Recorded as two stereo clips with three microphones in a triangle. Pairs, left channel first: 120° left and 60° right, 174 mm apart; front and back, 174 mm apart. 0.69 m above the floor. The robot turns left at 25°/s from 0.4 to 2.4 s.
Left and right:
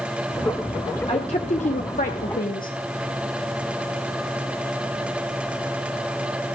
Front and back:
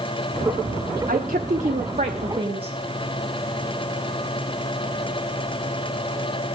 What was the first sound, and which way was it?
A woman speaking, 165° left.